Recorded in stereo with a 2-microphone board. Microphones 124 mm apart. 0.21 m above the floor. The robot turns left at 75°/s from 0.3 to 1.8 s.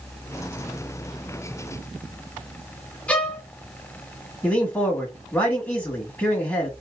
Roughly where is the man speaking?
Centre.